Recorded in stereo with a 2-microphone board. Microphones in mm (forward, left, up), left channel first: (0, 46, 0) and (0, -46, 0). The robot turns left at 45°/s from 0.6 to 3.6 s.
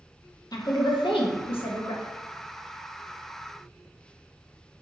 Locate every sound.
0.5 s a woman speaking: 45° left (ahead or behind), 0.7 m; by 2.0 s 65° left (ahead or behind), 0.7 m